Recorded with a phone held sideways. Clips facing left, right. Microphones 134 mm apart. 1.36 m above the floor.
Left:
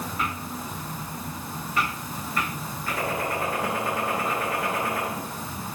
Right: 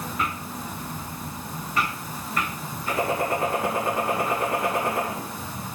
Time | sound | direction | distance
2.9 | a gunshot | 20° right (ahead or behind) | 5 m